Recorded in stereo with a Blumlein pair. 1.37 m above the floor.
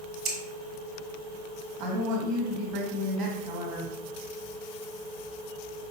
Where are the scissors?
30° right, 1.4 m.